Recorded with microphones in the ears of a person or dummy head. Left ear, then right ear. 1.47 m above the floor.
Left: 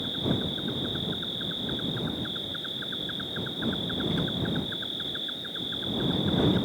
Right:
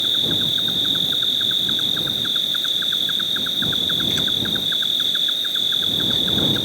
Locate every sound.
0.0 s an insect: 80° right